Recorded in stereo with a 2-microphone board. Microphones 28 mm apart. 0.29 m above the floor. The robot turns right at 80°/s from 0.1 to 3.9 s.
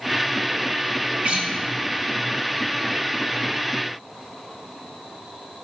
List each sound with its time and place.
1.2 s a guitar: 60° right (ahead or behind), 1.2 m; by 1.5 s 50° right (ahead or behind), 1.2 m